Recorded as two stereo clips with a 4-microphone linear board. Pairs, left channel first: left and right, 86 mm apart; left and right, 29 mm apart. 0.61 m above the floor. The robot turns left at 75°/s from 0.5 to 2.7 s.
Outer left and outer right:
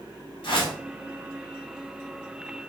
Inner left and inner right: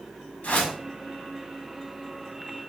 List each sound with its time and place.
0.4 s a whoosh: 75° left (ahead or behind), 1.1 m